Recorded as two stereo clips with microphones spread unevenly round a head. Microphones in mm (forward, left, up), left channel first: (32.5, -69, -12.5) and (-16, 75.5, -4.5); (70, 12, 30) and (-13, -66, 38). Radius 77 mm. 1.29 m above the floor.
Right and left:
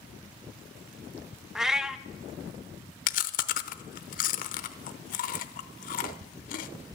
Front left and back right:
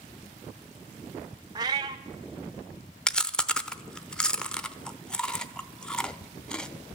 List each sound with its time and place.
1.6 s a cat meowing: 170° right, 0.5 m
3.1 s chewing: 40° right, 0.8 m